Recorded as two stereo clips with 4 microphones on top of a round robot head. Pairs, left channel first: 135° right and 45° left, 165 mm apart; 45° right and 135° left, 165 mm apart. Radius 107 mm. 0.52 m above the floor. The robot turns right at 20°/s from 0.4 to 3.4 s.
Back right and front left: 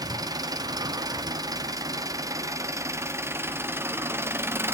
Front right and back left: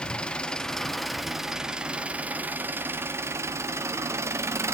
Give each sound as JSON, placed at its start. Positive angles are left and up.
{"t": 0.0, "sound": "an engine running", "azimuth_deg": 35, "distance_m": 0.9}